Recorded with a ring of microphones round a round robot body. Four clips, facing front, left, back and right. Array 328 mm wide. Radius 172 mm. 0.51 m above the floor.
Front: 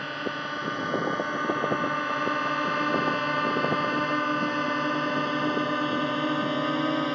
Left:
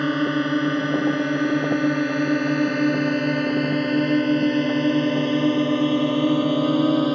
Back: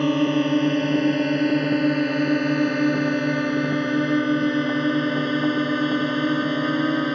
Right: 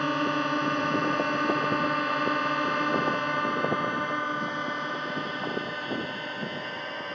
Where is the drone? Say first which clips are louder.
Left 5 dB, back 13 dB; 150° left; by 7.2 s 115° left.